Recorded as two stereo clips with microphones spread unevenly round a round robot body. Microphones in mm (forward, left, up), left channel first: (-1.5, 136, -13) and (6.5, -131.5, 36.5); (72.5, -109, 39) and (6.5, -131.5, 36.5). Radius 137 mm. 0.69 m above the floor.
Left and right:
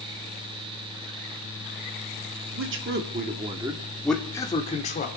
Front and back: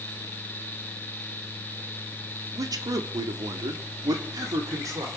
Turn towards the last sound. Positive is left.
turn(degrees=145)